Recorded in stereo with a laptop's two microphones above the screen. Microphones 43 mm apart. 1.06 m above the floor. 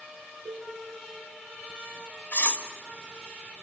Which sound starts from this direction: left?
Cutlery clinking, at 2.3 s.